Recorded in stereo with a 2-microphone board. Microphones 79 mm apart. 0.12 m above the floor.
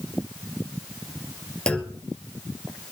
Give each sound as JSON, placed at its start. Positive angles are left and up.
{"t": 1.7, "sound": "a clunk", "side_deg": 10, "distance_m": 2.0}